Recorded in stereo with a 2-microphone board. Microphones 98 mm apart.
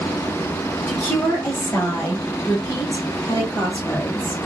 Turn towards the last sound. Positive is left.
turn(degrees=35)  # may be behind; listen again after turning